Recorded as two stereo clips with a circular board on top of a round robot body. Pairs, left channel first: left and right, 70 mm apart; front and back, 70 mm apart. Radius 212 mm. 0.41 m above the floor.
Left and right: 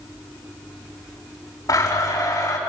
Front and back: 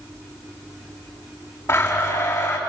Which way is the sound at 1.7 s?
50° left.